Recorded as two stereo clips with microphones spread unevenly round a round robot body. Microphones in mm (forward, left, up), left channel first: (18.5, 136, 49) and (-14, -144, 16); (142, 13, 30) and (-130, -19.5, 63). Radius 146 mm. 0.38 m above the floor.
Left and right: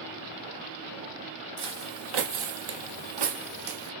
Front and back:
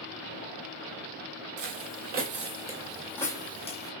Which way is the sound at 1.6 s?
140° right.